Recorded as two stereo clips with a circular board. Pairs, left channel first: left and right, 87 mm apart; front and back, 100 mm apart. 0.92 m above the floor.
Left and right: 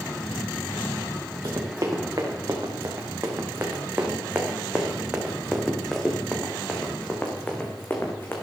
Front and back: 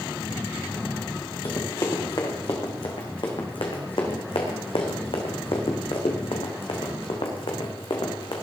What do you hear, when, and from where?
1.4 s running footsteps: 45° right, 4 m; by 8.4 s 30° left, 4 m